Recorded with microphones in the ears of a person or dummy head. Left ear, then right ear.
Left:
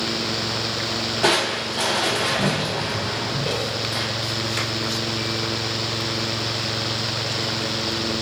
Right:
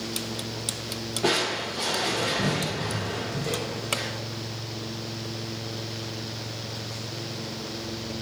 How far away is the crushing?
About 0.8 m.